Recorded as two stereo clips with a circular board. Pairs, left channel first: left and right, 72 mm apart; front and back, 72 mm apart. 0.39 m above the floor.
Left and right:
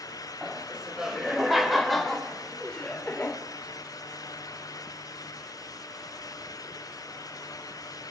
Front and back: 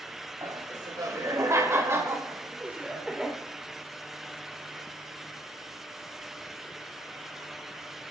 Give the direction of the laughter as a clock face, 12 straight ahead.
6 o'clock.